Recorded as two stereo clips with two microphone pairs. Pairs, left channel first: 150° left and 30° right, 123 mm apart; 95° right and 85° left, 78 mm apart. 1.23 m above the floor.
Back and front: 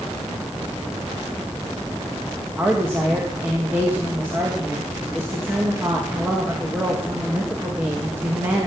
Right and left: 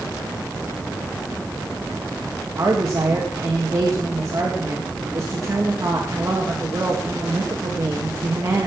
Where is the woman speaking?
40° left, 1.9 m.